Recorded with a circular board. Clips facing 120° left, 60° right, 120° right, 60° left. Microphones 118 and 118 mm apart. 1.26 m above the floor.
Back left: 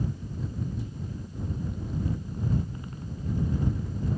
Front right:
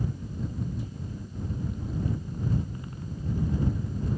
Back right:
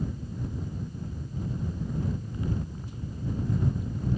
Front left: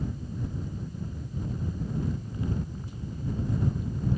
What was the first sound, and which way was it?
Only background noise.